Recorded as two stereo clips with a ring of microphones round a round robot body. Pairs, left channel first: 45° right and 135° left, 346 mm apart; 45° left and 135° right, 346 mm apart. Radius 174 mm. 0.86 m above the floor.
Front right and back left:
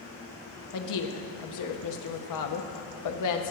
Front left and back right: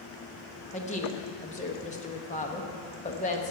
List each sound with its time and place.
0.7 s a woman speaking: 20° right, 1.1 m